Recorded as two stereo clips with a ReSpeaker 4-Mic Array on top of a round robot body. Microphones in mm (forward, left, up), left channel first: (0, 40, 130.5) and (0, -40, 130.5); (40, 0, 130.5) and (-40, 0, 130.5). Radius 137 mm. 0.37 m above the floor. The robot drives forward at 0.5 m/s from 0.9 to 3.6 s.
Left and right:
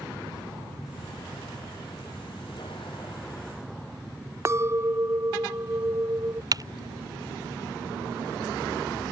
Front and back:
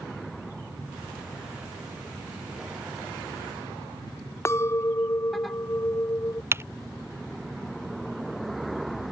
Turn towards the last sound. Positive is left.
turn(degrees=-125)